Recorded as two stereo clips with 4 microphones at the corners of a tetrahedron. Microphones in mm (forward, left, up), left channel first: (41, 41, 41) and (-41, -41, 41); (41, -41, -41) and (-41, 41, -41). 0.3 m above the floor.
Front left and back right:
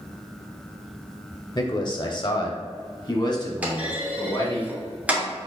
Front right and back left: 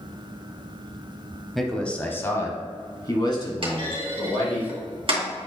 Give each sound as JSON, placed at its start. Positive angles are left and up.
{"t": 1.6, "sound": "a man speaking", "azimuth_deg": 45, "distance_m": 1.0}
{"t": 3.6, "sound": "a clunk", "azimuth_deg": 150, "distance_m": 2.5}